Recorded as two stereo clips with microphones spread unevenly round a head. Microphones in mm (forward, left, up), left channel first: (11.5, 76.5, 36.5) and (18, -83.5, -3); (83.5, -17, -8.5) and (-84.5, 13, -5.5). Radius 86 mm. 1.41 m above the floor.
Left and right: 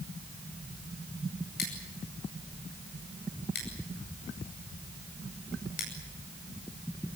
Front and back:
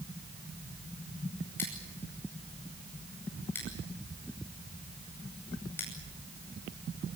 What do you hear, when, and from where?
1.6 s scissors: 70° left, 9.5 m